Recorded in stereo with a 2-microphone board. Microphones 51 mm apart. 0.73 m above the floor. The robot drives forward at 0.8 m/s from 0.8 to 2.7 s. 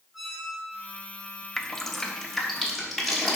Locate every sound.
0.1 s a squeak: 5° right (ahead or behind), 2.5 m
1.6 s dripping: 10° left (ahead or behind), 0.5 m; by 3.4 s 5° left (ahead or behind), 1.3 m